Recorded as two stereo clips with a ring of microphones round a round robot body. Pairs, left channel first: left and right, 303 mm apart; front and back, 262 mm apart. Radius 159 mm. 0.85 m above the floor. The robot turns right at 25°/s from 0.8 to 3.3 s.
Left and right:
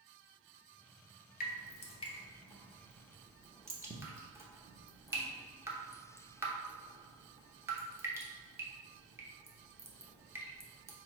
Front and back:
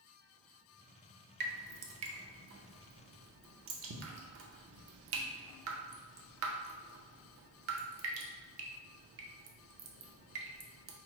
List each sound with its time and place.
1.4 s dripping: 145° left, 0.7 m; by 10.9 s 170° right, 0.7 m